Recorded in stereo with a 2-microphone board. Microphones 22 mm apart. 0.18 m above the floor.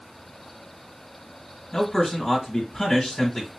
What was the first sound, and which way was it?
A man speaking, 20° left (ahead or behind).